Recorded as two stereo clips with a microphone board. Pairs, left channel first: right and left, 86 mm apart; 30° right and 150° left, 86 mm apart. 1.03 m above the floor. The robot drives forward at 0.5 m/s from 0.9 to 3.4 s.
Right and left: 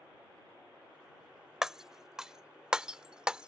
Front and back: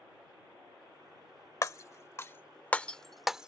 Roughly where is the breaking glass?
Ahead.